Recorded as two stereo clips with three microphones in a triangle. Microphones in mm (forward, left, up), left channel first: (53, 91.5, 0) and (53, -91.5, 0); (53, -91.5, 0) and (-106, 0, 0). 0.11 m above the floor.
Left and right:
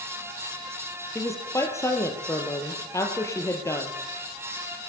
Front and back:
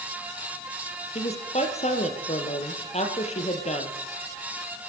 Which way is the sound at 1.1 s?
20° left.